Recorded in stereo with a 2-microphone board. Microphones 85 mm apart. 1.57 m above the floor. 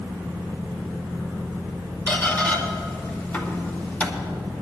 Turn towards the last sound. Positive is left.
turn(degrees=25)  # may be behind; listen again after turning